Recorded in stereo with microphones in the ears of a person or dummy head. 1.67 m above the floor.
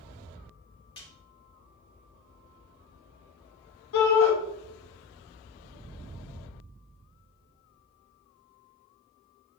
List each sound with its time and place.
1.0 s a snare drum: 25° left (ahead or behind), 0.7 m
3.9 s a shout: 80° left, 1.7 m